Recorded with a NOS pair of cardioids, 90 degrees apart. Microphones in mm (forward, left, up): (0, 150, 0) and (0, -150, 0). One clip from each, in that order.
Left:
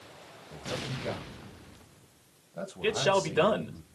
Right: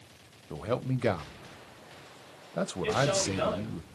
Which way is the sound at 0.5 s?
55° right.